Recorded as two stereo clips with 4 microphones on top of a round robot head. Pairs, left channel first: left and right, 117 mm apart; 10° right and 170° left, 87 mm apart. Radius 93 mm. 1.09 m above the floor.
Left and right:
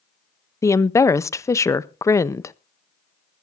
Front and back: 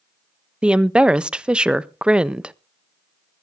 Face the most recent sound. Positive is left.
turn(degrees=105)